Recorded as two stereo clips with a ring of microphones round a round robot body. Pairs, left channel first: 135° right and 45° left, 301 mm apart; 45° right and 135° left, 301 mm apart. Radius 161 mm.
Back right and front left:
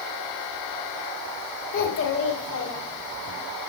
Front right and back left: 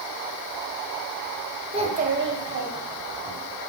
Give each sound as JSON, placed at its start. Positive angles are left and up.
{"t": 1.7, "sound": "a child speaking", "azimuth_deg": -160, "distance_m": 1.2}